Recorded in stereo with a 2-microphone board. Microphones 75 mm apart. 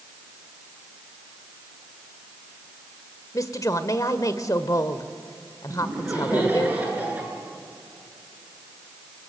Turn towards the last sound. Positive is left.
turn(degrees=-20)  # may be behind; listen again after turning